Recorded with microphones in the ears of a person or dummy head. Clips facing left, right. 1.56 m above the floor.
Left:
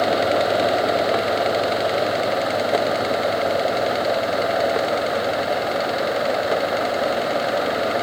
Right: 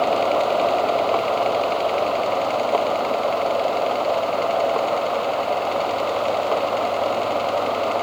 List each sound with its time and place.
Only background noise.